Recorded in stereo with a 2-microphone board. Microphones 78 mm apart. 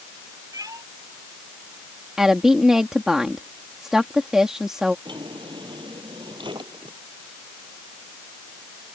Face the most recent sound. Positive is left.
turn(degrees=-75)  # may be behind; listen again after turning